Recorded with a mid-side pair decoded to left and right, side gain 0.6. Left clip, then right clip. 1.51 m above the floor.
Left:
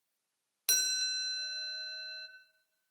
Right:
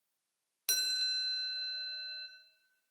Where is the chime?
15° left, 0.5 m.